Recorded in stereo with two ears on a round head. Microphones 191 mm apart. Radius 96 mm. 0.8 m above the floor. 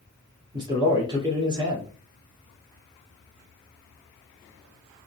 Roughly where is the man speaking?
Right.